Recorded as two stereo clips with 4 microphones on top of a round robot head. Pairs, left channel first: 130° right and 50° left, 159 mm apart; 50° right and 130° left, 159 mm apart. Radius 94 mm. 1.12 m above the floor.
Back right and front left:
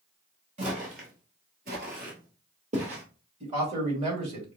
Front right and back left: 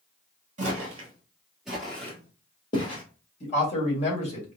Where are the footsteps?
95° left, 1.5 m; by 3.0 s 5° left, 1.9 m.